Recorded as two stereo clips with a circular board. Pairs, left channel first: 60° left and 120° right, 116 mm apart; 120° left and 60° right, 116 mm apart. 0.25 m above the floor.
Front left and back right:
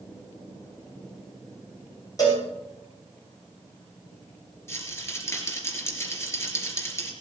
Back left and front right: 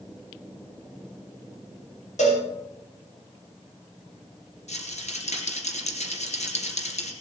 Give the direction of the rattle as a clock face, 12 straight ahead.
8 o'clock.